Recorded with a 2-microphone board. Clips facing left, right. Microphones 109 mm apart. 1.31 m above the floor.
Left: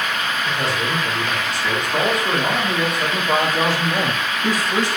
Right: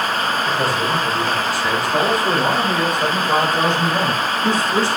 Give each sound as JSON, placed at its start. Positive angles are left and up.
{"t": 0.5, "sound": "a man speaking", "side_deg": -10, "distance_m": 5.0}